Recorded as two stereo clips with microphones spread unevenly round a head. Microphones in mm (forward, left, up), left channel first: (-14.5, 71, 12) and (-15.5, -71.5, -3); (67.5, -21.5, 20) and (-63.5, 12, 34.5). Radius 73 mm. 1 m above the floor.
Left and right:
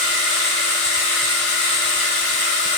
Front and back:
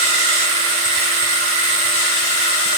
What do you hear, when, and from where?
0.0 s a machine running: 165° left, 1.7 m